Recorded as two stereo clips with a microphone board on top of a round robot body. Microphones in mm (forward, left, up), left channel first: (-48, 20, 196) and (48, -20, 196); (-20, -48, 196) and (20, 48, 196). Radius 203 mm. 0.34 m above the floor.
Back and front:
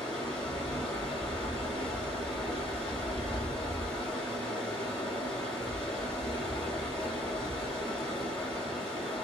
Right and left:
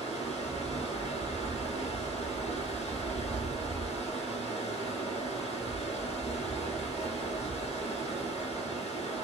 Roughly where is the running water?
Behind right.